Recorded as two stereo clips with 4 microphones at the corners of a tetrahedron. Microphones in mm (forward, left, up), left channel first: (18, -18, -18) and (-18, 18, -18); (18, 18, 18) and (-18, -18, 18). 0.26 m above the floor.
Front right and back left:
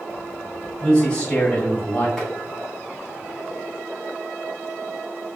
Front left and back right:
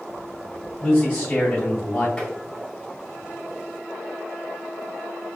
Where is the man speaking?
20° right, 1.7 m.